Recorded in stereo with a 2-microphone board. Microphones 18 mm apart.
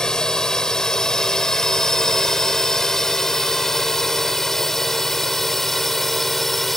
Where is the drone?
45° left (ahead or behind); by 6.8 s 10° left (ahead or behind).